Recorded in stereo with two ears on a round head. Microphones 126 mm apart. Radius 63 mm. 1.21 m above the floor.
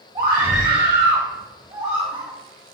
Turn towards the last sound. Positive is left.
turn(degrees=-25)  # may be behind; listen again after turning